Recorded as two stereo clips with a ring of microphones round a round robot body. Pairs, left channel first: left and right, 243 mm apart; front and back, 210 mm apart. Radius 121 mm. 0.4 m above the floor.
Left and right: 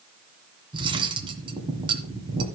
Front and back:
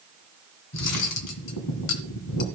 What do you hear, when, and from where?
0.7 s cutlery clinking: 20° right, 2 m